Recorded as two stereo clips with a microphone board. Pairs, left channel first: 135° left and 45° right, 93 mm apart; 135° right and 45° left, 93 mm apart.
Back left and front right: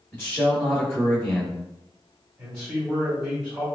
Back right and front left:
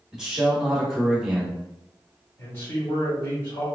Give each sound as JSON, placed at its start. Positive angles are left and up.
{"t": 0.1, "sound": "a man speaking", "azimuth_deg": 125, "distance_m": 1.0}
{"t": 2.4, "sound": "a man speaking", "azimuth_deg": -110, "distance_m": 1.6}